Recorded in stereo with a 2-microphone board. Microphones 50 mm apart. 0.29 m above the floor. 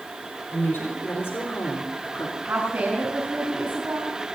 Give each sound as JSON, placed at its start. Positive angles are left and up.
{"t": 0.5, "sound": "a woman speaking", "side_deg": 50, "distance_m": 4.0}
{"t": 2.4, "sound": "a woman speaking", "side_deg": -55, "distance_m": 3.5}